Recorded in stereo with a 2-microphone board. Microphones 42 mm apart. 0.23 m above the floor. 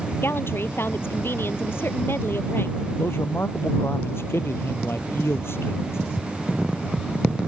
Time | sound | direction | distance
0.2 | a woman speaking | 65° left (ahead or behind) | ?
3.0 | a man speaking | 70° left (ahead or behind) | ?